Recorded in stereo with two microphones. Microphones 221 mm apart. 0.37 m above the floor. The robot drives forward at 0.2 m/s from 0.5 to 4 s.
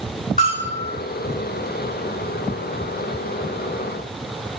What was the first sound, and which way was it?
A bell, 45° left (ahead or behind).